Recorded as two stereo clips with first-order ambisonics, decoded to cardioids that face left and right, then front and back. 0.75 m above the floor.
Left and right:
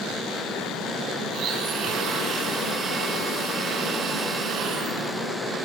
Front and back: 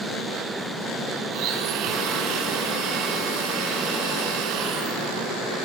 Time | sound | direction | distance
1.3 | a blender | 145° right | 4 m